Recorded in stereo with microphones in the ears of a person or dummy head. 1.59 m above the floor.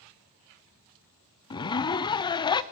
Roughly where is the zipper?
Left.